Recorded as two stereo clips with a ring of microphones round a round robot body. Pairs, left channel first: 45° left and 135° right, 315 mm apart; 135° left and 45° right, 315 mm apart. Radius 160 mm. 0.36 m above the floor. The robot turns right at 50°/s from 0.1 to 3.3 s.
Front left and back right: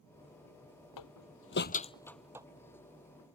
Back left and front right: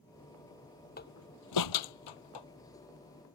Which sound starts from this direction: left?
A door slam, at 1.0 s.